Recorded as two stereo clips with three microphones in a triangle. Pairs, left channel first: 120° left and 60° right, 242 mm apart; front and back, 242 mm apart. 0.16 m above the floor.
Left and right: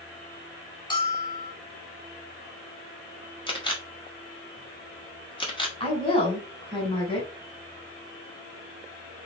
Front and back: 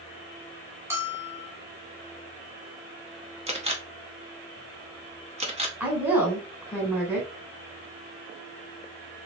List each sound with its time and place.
0.9 s a bell: 125° left, 1.0 m
3.5 s a camera shutter: 160° left, 0.8 m
5.8 s a woman speaking: 110° left, 1.3 m